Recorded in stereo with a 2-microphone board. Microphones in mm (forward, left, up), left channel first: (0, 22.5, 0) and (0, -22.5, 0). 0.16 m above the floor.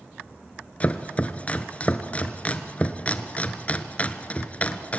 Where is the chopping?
30° left (ahead or behind), 1.1 m.